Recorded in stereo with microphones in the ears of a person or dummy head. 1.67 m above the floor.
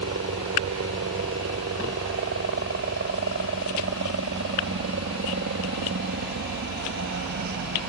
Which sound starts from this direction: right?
A helicopter, at 0.0 s.